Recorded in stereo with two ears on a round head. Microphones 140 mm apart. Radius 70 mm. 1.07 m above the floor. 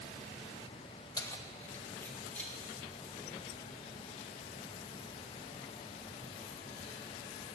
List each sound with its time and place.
1.2 s keys jangling: 25° left (ahead or behind), 1.0 m; by 7.0 s 5° left (ahead or behind), 6.5 m